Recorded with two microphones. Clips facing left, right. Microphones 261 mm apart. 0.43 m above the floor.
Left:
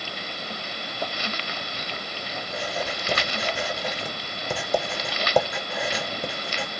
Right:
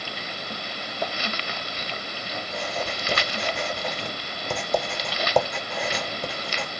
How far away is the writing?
About 1.0 m.